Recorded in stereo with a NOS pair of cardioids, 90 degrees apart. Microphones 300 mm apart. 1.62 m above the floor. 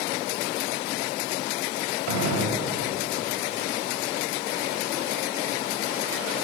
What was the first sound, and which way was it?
A gunshot, 65° right.